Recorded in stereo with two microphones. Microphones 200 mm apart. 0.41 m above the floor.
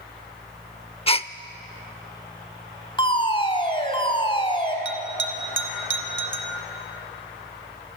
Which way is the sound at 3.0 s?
25° left (ahead or behind).